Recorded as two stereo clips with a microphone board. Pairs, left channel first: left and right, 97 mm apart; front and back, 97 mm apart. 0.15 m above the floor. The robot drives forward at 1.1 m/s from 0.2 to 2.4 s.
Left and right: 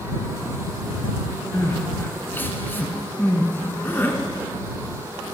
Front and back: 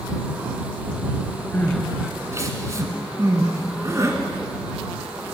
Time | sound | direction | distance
1.5 | crying | 45° left | 1.0 m